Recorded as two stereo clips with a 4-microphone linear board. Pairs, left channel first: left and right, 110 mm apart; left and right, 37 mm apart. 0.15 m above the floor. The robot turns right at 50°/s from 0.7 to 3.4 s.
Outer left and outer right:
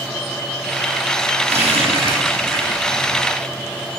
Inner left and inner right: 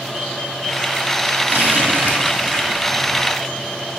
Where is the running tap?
80° right, 4.5 m; by 3.2 s 10° right (ahead or behind), 4.5 m.